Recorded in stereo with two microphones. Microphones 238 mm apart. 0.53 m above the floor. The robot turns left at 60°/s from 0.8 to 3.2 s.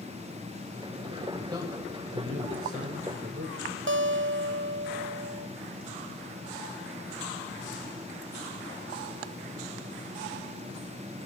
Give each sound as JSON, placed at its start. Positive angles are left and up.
{"t": 1.5, "sound": "a man speaking", "azimuth_deg": -15, "distance_m": 3.0}
{"t": 3.9, "sound": "a guitar", "side_deg": -55, "distance_m": 0.5}